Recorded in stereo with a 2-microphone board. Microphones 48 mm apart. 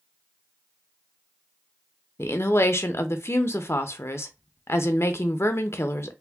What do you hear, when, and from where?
2.2 s a woman speaking: 70° left (ahead or behind), 0.5 m